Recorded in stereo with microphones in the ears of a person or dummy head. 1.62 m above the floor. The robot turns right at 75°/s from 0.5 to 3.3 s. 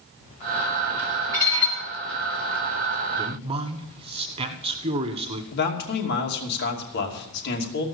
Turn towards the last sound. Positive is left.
turn(degrees=65)  # may be behind; listen again after turning